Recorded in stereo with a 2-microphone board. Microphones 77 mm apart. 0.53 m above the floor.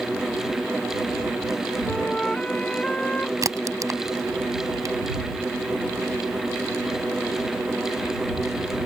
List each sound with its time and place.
1.8 s a flute: 15° left (ahead or behind)
3.4 s a crack: 50° right (ahead or behind)